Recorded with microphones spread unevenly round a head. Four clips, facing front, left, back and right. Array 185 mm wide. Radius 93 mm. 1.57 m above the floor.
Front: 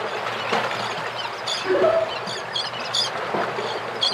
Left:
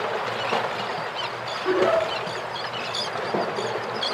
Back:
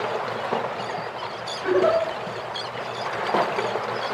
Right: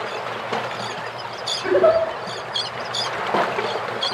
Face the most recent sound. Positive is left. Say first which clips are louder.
# right 5 dB, front 1 dB
turn(degrees=-90)